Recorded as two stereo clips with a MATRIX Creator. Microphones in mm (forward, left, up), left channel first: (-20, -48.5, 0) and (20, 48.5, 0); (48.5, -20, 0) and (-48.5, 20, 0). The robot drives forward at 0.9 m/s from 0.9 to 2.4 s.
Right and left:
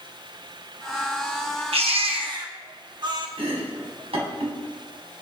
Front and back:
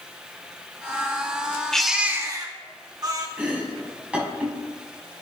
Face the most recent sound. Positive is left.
turn(degrees=80)